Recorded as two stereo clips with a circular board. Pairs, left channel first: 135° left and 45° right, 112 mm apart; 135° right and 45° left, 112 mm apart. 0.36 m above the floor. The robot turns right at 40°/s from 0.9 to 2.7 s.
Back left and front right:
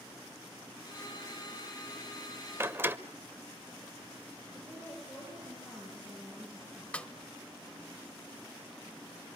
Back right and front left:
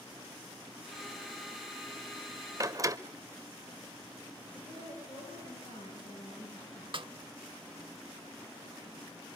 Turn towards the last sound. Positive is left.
turn(degrees=60)